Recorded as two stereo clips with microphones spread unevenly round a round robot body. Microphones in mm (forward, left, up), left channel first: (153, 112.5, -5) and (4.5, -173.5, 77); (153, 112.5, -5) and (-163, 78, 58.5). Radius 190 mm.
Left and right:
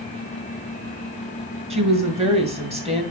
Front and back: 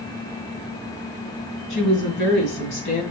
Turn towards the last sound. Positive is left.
turn(degrees=-40)